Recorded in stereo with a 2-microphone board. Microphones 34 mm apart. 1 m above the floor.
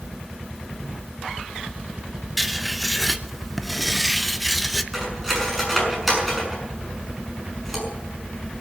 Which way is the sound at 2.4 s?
Centre (ahead or behind).